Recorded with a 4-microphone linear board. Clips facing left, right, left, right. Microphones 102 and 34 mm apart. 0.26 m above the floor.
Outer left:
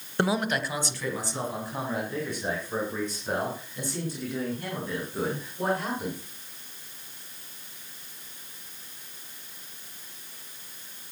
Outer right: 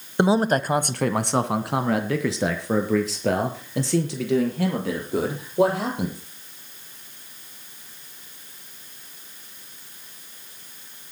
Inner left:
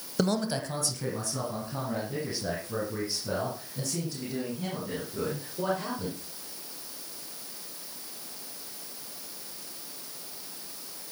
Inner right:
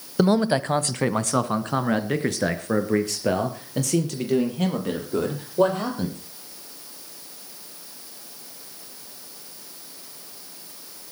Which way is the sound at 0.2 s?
20° right (ahead or behind).